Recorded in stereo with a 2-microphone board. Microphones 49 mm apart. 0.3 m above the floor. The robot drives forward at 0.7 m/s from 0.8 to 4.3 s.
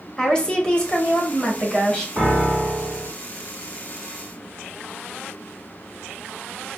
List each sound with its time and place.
0.2 s a woman speaking: 20° left (ahead or behind), 1.0 m; by 2.1 s 15° left (ahead or behind), 1.5 m
2.2 s a piano: 25° right (ahead or behind), 1.3 m; by 3.1 s 30° right (ahead or behind), 1.1 m